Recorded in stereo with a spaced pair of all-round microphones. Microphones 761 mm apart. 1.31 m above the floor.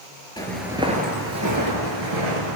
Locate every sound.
0.4 s footsteps: 5° left (ahead or behind), 1.3 m; by 2.6 s 40° right (ahead or behind), 1.7 m